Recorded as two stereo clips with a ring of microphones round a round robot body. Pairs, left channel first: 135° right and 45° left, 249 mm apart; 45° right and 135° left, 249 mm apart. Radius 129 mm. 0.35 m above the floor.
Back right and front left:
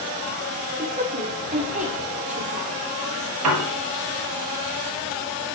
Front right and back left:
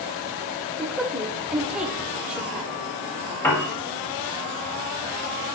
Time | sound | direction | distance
0.8 | a woman speaking | 55° left | 1.0 m
3.4 | a piano | 35° left | 1.2 m